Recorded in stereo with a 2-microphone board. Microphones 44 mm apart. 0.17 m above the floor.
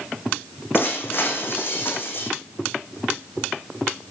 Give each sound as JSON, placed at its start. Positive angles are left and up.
{"t": 0.7, "sound": "breaking glass", "side_deg": 50, "distance_m": 5.0}